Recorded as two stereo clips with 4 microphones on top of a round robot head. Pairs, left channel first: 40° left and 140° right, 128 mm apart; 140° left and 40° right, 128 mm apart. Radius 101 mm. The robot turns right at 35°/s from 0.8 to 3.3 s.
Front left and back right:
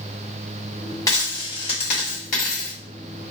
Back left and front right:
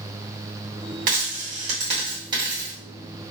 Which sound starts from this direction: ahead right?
A dropped coin, at 1.1 s.